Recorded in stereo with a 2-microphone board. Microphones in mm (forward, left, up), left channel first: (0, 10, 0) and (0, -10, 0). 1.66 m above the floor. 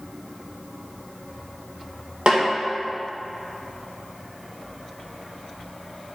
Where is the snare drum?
50° right (ahead or behind), 2 m.